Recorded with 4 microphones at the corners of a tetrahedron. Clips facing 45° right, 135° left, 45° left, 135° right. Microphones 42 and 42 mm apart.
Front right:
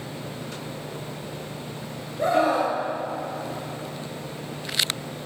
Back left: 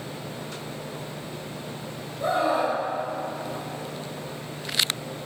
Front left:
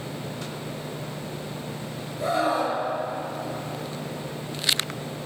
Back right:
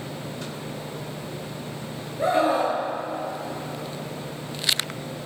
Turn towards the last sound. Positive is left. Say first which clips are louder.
# front right 2 dB, back right 3 dB
turn(degrees=-75)